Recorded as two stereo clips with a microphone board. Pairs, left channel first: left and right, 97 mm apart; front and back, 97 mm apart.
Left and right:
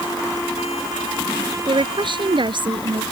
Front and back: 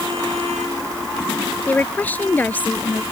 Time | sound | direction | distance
1.7 | a woman speaking | 70° right | ?